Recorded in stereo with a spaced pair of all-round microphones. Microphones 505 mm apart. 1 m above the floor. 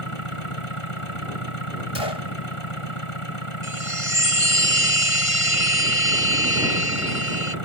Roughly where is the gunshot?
Left.